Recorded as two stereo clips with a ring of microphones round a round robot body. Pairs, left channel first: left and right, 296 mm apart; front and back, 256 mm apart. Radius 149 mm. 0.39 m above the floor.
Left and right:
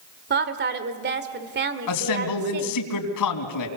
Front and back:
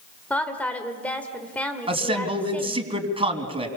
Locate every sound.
0.3 s a woman speaking: 80° right, 1.6 m
1.9 s a man speaking: 110° left, 3.5 m